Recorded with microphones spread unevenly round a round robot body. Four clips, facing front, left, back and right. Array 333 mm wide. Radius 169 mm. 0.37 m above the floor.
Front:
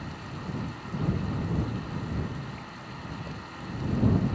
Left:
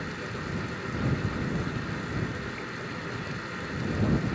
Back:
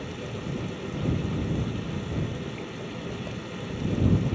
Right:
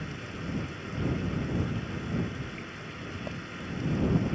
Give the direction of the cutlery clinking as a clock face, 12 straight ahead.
I don't hear cutlery clinking.